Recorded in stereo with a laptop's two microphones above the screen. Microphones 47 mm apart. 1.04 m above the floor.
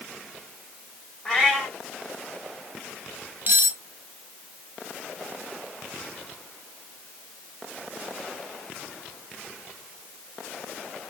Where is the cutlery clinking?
45° right (ahead or behind), 0.6 m.